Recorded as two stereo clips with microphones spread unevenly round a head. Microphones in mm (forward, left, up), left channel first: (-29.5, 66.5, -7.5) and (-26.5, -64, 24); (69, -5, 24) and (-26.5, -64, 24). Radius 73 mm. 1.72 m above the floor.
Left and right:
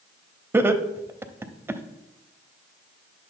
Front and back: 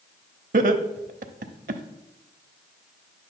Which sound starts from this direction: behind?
Laughter, at 0.5 s.